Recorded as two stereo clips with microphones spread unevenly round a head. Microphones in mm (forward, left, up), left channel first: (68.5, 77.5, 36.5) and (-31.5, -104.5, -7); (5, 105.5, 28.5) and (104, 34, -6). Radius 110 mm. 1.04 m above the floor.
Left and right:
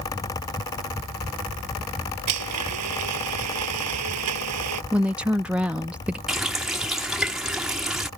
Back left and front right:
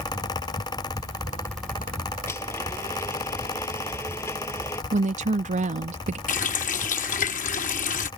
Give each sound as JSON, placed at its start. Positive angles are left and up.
{"t": 2.3, "sound": "a blender", "azimuth_deg": -140}
{"t": 4.9, "sound": "a woman speaking", "azimuth_deg": -35}
{"t": 6.3, "sound": "a running tap", "azimuth_deg": 150}